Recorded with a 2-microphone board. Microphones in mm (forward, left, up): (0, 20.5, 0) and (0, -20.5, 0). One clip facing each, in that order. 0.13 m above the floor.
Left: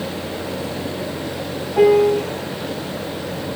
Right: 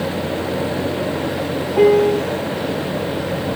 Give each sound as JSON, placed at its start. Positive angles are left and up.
{"t": 1.8, "sound": "a piano", "side_deg": 0, "distance_m": 0.7}